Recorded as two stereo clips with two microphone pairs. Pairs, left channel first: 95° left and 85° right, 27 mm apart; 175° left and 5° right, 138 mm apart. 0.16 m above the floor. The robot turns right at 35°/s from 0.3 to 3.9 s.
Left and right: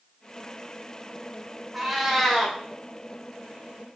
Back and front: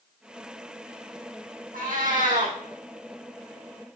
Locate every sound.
1.7 s a cat meowing: straight ahead, 2.0 m; by 2.6 s 25° left, 2.0 m